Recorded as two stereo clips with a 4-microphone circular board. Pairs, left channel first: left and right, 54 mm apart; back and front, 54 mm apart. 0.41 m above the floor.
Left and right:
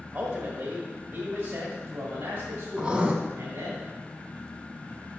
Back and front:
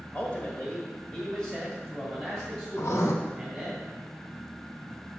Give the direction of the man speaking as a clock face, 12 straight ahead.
4 o'clock.